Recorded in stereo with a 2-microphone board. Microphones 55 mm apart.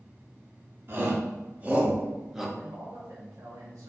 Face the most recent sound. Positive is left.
turn(degrees=-65)  # may be behind; listen again after turning